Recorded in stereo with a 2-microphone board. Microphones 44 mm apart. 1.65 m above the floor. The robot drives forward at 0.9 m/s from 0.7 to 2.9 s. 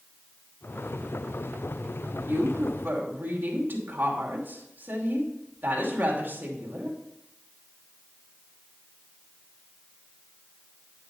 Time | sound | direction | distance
2.3 | a woman speaking | 55° right (ahead or behind) | 2 m